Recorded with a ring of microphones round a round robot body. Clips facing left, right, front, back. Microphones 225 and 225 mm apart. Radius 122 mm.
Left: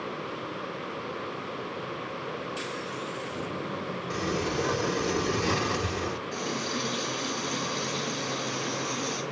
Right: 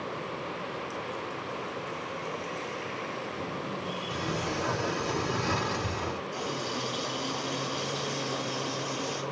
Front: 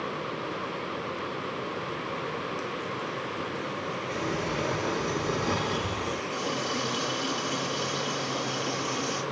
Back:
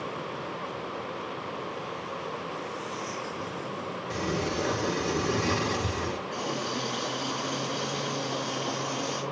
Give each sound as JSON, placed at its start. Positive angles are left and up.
{"t": 4.1, "sound": "a sliding door", "azimuth_deg": 130, "distance_m": 1.6}
{"t": 6.3, "sound": "a running tap", "azimuth_deg": 90, "distance_m": 6.0}